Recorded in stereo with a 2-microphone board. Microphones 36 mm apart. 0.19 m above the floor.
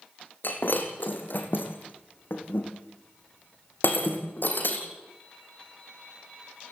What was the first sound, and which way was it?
Breaking glass, 60° left (ahead or behind).